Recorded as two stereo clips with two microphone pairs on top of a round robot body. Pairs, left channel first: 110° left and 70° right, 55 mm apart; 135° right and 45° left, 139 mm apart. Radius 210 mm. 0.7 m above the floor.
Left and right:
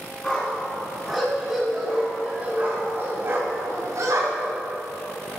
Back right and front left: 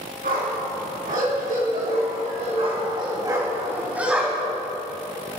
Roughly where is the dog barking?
Ahead left.